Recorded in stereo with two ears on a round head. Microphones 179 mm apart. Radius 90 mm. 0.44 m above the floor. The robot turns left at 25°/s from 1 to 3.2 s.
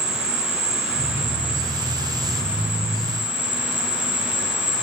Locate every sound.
0.0 s an insect: 150° right, 3 m; by 4.8 s 155° left, 3 m